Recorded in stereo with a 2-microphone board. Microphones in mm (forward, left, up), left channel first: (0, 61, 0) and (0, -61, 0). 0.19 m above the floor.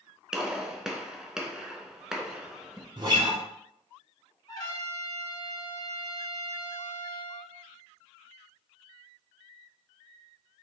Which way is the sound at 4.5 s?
35° left (ahead or behind).